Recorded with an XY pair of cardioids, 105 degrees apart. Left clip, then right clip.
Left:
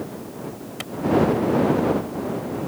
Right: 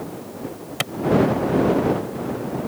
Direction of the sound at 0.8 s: 55° right.